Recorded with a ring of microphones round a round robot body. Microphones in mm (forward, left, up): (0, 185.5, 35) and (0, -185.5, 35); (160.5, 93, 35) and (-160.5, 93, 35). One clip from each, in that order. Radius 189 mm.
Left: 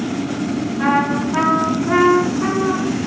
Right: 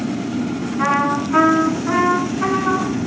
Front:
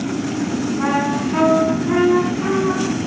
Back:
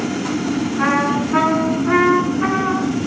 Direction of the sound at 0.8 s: 135° right.